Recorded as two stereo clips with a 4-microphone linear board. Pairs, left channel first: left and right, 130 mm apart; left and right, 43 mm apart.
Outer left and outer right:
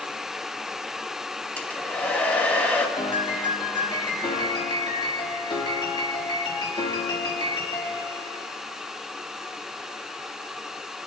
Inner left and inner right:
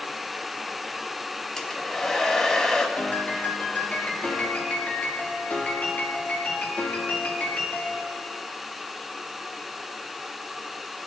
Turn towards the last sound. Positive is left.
turn(degrees=35)  # may be behind; listen again after turning